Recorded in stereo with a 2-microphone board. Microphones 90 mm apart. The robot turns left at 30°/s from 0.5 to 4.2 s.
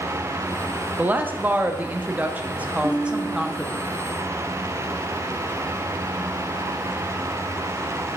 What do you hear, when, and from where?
1.0 s a woman speaking: 20° right (ahead or behind), 0.5 m; by 3.8 s 5° right (ahead or behind), 0.5 m
2.8 s a guitar: 55° right (ahead or behind), 1.2 m; by 3.8 s 35° right (ahead or behind), 1.2 m